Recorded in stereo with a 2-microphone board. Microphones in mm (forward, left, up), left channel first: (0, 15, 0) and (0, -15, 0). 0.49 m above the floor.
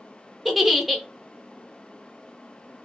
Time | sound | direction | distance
0.5 | a giggle | 5° right (ahead or behind) | 0.6 m